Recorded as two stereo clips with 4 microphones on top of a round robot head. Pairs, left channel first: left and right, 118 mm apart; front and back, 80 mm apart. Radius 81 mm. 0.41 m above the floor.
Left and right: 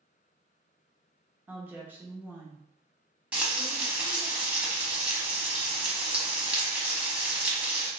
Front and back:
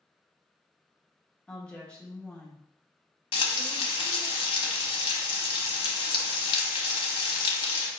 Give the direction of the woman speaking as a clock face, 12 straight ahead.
2 o'clock.